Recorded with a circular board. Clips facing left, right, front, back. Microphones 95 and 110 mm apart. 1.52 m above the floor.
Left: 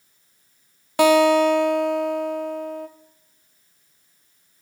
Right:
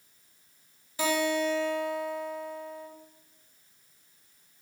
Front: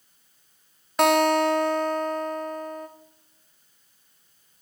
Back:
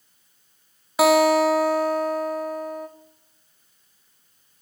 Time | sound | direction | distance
1.0 | a guitar | 95° left | 0.8 m